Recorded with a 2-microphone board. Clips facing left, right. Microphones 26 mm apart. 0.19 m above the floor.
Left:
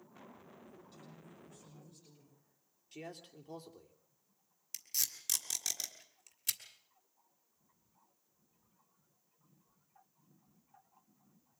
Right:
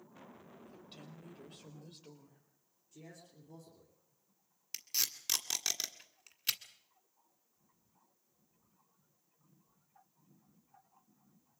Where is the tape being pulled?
35° right (ahead or behind), 1.6 m.